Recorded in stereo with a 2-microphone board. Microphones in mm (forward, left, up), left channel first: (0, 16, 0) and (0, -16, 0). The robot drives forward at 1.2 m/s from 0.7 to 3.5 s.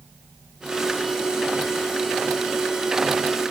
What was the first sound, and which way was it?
Only background noise.